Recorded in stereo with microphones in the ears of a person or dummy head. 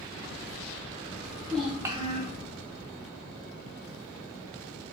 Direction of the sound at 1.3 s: 20° left (ahead or behind).